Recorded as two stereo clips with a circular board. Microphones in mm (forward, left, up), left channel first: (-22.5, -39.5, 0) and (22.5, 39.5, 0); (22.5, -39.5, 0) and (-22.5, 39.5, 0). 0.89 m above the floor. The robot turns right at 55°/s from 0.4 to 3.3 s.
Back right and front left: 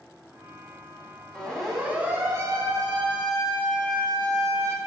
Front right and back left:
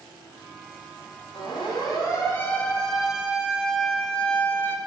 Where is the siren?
45° right, 5.5 m; by 4.8 s straight ahead, 2 m.